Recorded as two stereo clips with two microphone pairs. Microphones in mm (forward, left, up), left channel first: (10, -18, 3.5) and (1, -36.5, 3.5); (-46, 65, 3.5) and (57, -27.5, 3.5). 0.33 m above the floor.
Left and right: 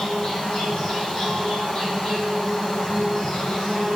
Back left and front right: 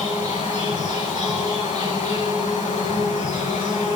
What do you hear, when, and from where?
0.0 s an insect: 110° left, 5 m